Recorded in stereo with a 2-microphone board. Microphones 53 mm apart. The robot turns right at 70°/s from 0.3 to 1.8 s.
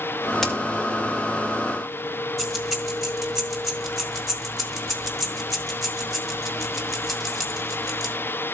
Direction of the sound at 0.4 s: 5° left (ahead or behind).